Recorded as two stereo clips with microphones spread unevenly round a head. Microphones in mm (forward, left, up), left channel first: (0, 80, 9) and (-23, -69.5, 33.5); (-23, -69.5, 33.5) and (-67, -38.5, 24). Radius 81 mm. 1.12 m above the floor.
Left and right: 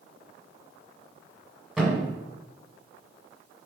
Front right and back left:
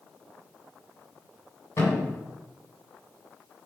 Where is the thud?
20° right, 1.5 m.